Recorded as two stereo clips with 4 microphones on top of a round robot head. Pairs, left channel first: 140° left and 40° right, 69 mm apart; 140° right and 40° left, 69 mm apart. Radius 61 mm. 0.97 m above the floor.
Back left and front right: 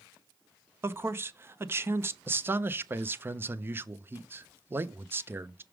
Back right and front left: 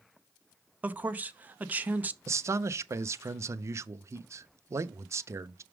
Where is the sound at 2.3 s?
5° left, 0.6 m.